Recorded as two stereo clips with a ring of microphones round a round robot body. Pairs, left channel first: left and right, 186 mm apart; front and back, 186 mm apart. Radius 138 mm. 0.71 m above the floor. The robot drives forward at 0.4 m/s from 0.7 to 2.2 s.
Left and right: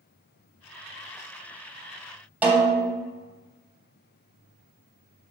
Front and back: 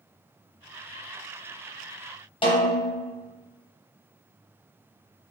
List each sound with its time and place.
2.4 s a snare drum: 15° right, 0.7 m